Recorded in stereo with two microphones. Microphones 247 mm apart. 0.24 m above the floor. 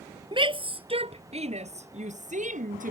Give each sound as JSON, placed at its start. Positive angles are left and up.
{"t": 0.3, "sound": "a shout", "side_deg": -20}